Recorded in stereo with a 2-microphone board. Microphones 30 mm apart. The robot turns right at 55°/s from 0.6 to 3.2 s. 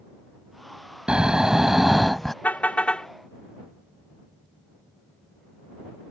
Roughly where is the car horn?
Behind left.